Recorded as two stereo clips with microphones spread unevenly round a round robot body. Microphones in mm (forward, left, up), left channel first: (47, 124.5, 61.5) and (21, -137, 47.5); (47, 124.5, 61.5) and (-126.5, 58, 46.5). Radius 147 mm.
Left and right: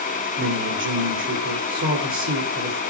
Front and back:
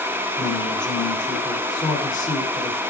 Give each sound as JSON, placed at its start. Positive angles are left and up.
{"t": 0.4, "sound": "a man speaking", "azimuth_deg": -50, "distance_m": 3.0}